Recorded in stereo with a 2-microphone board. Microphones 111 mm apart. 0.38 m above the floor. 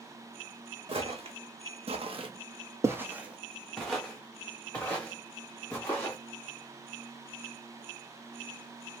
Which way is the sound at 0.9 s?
55° right (ahead or behind).